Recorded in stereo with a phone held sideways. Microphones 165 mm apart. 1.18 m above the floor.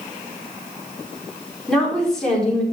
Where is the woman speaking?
5° left (ahead or behind), 4 m.